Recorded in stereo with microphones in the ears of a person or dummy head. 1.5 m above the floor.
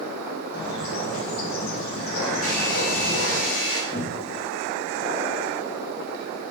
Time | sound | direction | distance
0.5 | a bird | 60° left (ahead or behind) | 0.9 m
2.4 | a hair dryer | 65° left (ahead or behind) | 1.0 m
3.9 | a cupboard door | 25° left (ahead or behind) | 1.4 m